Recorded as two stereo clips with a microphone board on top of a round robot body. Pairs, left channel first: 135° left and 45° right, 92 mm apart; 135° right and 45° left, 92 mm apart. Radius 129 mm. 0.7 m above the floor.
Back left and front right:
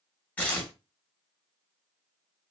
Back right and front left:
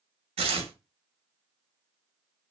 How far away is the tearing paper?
About 0.6 m.